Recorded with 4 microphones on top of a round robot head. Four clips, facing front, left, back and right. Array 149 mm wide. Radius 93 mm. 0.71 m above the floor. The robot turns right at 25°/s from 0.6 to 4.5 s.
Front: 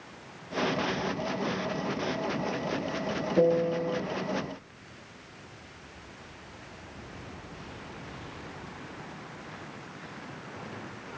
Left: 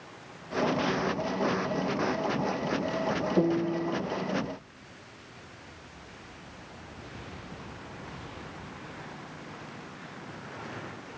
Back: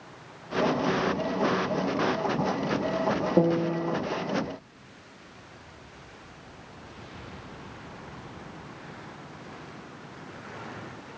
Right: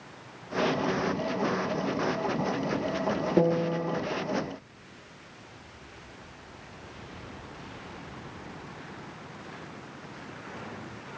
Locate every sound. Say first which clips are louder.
3.4 s a piano: right 2 dB, front 2 dB; 150° right, 1.3 m; by 4.0 s 135° right, 1.3 m